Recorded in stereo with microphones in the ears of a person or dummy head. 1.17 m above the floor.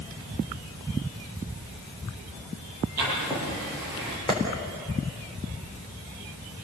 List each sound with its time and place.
3.0 s writing: 5° right (ahead or behind), 10 m
4.3 s a clap: 15° left (ahead or behind), 4 m